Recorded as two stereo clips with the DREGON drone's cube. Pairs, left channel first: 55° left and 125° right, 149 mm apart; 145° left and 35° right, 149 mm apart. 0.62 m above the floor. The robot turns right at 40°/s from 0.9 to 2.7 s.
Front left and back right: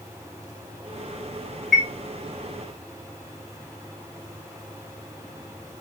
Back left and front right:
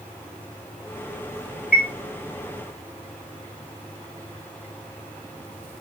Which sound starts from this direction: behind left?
A chime, at 1.7 s.